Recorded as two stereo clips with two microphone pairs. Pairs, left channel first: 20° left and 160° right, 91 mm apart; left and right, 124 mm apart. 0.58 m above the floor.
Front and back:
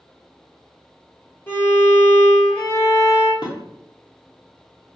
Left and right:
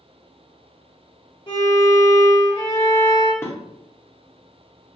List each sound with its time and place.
1.5 s a violin: 70° left, 1.6 m
3.4 s dishes clattering: 25° left, 0.8 m